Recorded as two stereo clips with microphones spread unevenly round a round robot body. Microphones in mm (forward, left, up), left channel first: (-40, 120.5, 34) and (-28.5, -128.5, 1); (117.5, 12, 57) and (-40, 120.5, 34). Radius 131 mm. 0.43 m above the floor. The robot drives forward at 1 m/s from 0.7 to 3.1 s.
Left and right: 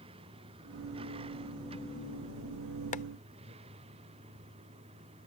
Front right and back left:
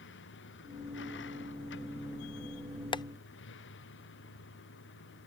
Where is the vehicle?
15° right.